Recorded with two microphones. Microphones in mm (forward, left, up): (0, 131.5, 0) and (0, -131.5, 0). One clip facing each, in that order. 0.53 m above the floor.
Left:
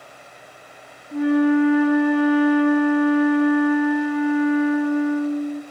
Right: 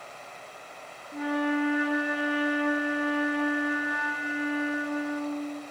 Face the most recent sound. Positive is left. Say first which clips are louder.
# left 11 dB
turn(degrees=60)  # may be behind; listen again after turning